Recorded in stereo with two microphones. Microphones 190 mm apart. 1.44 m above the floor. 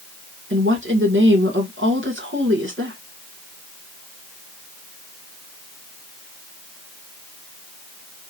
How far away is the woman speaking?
About 1.9 m.